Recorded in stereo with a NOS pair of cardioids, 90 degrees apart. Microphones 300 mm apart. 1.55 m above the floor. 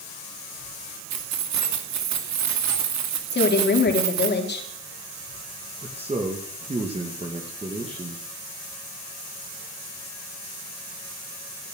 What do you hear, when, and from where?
1.1 s keys jangling: 65° right, 2.5 m
3.3 s a woman speaking: 35° left, 4 m
5.8 s a man speaking: 20° right, 2.5 m